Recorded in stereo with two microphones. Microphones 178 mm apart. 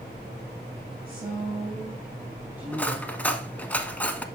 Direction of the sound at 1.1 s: 10° right (ahead or behind).